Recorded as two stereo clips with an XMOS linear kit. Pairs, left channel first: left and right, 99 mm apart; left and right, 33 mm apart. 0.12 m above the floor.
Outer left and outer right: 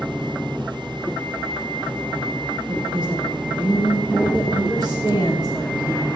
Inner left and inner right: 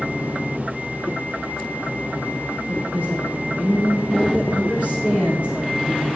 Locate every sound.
2.7 s a woman speaking: 55° right (ahead or behind), 6 m; by 6.1 s 35° right (ahead or behind), 5.5 m